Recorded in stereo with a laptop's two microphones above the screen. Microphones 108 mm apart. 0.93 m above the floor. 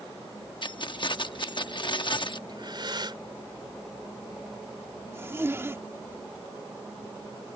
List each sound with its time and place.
0.6 s keys jangling: 55° left (ahead or behind)
2.5 s breathing: 50° right (ahead or behind)
5.1 s a zipper: 25° right (ahead or behind)